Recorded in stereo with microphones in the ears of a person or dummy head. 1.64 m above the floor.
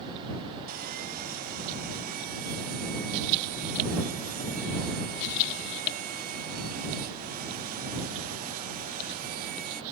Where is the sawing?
40° right (ahead or behind).